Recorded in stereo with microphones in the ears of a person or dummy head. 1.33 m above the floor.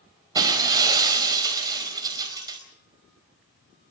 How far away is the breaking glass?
About 4.5 m.